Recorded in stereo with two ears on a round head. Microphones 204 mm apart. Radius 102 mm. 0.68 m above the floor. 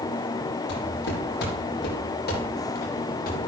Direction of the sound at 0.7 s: 55° left (ahead or behind).